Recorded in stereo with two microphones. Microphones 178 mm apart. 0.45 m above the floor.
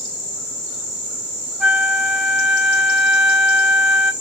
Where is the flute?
Centre (ahead or behind), 0.5 m.